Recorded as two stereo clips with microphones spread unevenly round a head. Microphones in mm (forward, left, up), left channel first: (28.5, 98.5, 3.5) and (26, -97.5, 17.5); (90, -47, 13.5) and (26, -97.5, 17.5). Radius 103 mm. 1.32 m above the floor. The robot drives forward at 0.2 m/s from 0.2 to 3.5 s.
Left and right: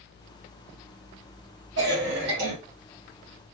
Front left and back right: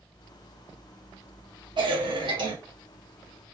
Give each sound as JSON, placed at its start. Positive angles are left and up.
{"t": 1.8, "sound": "a cough", "azimuth_deg": -125, "distance_m": 1.7}